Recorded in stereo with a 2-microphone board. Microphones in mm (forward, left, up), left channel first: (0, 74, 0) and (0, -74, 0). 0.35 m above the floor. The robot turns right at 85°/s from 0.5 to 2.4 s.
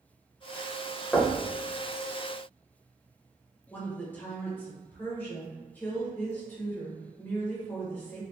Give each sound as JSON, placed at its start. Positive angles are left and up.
{"t": 1.1, "sound": "knocking", "side_deg": 10, "distance_m": 0.7}
{"t": 3.7, "sound": "a woman speaking", "side_deg": 15, "distance_m": 1.3}